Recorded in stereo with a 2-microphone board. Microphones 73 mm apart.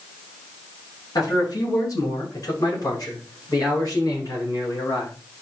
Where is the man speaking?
60° left (ahead or behind), 9 m; by 5.1 s 50° left (ahead or behind), 11.5 m.